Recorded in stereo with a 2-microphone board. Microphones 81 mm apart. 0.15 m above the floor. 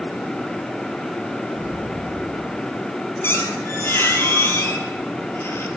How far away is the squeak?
About 1.3 m.